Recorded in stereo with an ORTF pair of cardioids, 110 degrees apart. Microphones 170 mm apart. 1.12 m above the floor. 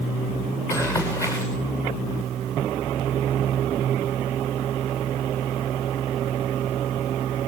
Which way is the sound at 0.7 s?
20° left.